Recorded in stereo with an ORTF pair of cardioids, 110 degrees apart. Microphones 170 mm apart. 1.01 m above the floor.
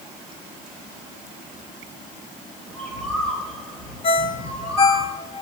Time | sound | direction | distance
2.6 | a bird | 5° left | 3.5 m
4.0 | a ringtone | 35° left | 0.7 m